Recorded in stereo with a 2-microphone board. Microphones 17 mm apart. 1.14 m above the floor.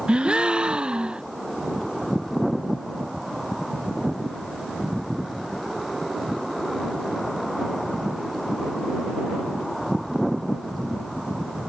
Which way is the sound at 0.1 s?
80° right.